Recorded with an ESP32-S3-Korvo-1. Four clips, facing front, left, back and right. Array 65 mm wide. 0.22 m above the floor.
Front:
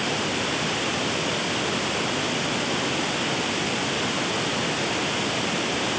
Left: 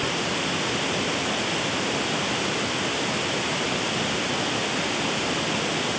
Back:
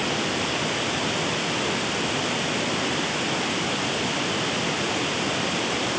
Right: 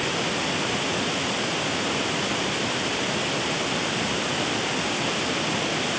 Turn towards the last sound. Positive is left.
No sound to turn to.